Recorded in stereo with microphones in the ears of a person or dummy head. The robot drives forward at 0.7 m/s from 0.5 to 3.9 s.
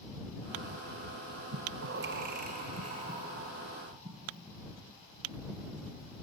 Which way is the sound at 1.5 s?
60° right (ahead or behind).